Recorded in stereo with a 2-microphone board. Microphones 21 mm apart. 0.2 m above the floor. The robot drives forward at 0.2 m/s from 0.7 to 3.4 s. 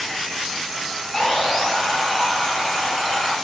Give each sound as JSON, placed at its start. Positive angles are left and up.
{"t": 1.1, "sound": "sawing", "side_deg": 20, "distance_m": 1.8}